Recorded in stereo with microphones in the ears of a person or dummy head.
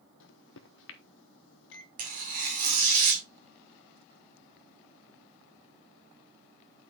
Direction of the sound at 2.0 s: 50° right (ahead or behind).